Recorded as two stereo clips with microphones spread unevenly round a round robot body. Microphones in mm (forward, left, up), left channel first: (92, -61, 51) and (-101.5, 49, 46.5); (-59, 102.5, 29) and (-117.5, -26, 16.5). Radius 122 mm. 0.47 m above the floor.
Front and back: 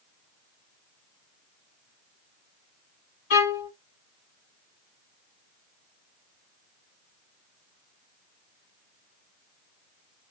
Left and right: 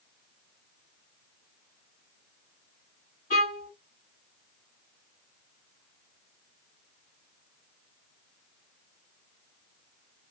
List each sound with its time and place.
3.3 s a violin: 15° left, 1.0 m